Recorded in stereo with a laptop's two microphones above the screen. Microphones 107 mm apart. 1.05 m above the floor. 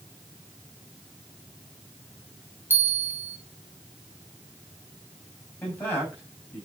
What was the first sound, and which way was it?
A bell, 20° right (ahead or behind).